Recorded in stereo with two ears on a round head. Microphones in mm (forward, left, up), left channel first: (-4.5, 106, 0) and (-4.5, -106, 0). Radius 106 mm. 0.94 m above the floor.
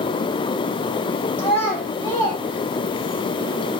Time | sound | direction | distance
1.4 | a child speaking | 10° left (ahead or behind) | 3.5 m